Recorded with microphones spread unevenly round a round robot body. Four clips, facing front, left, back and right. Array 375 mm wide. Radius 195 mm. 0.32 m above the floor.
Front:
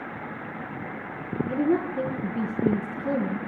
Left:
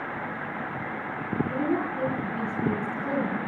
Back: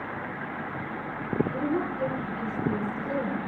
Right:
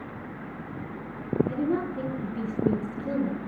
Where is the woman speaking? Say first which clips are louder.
Left 1 dB, front 4 dB; 5° right, 5 m.